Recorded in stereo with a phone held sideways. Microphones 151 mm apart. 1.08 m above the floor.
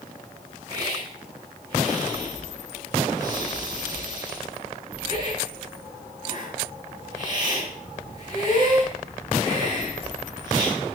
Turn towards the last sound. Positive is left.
turn(degrees=-30)  # may be behind; listen again after turning